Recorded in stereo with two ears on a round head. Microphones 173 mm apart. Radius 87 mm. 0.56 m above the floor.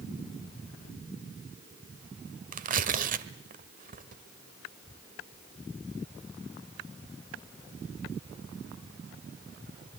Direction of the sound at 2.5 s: 45° right (ahead or behind).